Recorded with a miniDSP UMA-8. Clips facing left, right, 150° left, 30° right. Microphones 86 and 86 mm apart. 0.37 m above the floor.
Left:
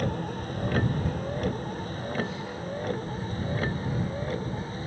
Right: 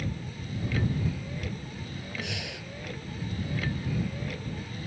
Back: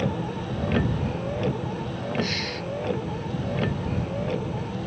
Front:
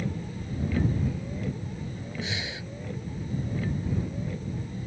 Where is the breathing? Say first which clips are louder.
Left 5 dB, back 6 dB; 90° right.